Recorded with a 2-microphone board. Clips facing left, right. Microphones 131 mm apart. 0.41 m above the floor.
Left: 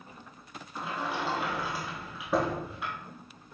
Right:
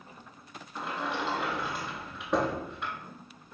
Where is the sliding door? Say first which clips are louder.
Even; 5° left (ahead or behind), 0.8 m.